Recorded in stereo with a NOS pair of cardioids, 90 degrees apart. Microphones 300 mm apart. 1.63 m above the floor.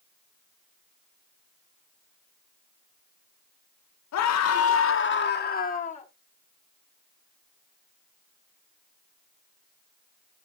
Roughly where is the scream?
Left.